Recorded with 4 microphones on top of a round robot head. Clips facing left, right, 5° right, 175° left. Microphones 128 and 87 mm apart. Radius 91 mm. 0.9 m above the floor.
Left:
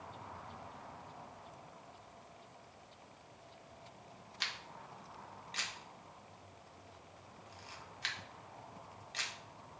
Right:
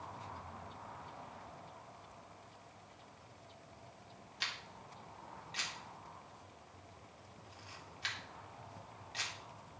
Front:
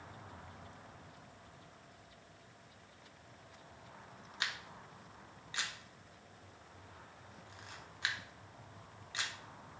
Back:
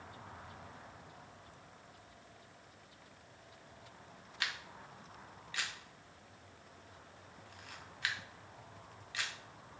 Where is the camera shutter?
60° left, 1.5 m.